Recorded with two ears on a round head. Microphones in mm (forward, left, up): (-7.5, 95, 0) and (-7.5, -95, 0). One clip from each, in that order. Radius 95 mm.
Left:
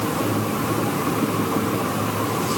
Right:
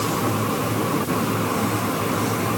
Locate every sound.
Only background noise.